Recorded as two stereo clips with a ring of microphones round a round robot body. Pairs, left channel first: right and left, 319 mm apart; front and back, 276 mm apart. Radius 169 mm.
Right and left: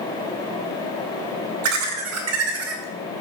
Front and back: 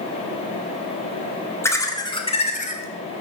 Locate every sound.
1.6 s laughter: 80° left, 2 m; by 3.2 s 40° left, 2.0 m